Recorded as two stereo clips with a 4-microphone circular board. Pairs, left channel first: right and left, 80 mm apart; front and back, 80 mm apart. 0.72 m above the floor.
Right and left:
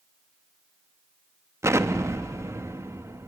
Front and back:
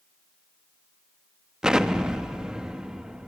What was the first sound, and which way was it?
An explosion, 105° left.